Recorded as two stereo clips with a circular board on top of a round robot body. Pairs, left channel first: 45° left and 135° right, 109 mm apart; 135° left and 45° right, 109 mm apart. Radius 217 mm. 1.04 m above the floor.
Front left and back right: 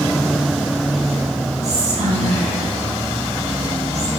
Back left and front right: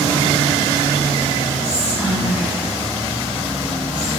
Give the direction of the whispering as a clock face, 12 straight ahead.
4 o'clock.